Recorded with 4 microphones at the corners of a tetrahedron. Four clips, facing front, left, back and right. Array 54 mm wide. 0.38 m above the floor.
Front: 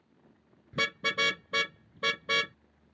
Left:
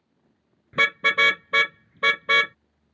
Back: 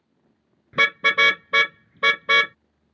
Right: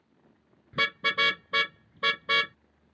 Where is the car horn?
145° left.